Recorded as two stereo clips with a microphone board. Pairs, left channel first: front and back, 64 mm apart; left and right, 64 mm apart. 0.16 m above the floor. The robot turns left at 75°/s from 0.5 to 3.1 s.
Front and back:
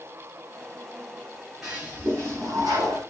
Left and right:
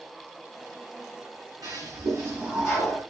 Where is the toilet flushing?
95° right, 5.5 m; by 3.0 s 160° left, 5.5 m.